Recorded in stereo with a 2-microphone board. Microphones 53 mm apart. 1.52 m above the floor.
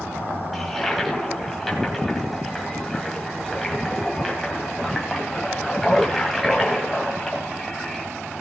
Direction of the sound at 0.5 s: Centre (ahead or behind).